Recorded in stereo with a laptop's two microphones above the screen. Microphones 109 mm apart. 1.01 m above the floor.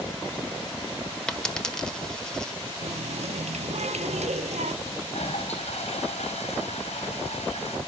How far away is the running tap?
About 0.9 m.